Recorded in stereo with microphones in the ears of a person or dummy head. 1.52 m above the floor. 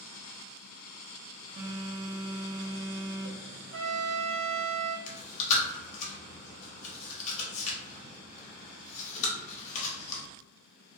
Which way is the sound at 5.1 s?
40° left (ahead or behind).